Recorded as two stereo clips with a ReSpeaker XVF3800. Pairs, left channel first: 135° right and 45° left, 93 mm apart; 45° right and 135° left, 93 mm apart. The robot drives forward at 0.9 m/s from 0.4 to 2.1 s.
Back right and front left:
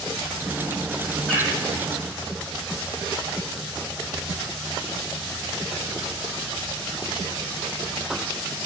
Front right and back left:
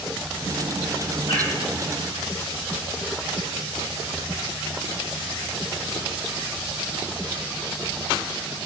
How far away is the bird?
About 3 m.